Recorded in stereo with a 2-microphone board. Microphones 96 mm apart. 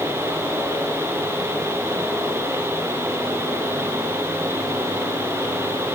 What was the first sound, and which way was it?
Only background noise.